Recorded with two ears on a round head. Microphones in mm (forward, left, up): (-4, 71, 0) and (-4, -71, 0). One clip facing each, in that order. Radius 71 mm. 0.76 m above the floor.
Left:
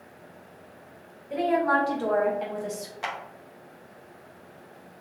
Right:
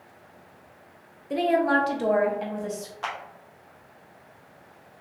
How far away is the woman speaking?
About 1.0 m.